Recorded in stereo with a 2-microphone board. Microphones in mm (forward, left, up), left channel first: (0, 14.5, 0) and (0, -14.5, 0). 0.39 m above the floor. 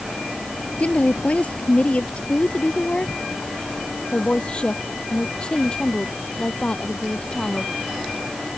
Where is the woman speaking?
50° left (ahead or behind); by 7.7 s 35° left (ahead or behind).